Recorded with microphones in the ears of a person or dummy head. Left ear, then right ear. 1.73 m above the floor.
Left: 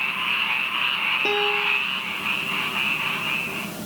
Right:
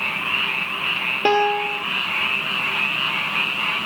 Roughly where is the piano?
Right.